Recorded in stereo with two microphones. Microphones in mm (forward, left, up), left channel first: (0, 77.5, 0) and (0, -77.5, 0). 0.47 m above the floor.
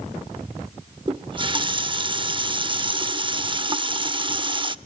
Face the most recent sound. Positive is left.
turn(degrees=-30)  # may be behind; listen again after turning